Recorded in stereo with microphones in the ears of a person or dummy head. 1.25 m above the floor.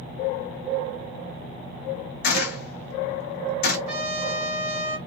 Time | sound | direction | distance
2.2 | a gunshot | 65° left (ahead or behind) | 0.9 m
3.9 | a trumpet | 45° right (ahead or behind) | 1.2 m